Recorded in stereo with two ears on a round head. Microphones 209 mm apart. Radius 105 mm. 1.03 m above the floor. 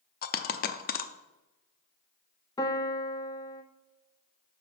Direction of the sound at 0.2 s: 40° left (ahead or behind).